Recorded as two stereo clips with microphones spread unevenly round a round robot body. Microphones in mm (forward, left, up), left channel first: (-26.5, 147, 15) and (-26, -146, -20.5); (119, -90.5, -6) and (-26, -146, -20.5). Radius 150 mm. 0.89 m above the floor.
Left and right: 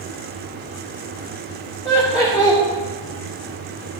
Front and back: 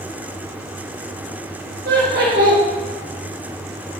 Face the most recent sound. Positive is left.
turn(degrees=170)